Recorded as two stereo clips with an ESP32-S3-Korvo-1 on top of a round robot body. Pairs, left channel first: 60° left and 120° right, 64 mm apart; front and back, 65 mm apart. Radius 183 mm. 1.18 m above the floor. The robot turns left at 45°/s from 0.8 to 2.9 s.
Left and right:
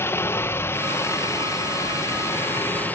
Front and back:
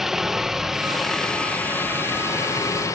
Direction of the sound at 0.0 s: 100° left.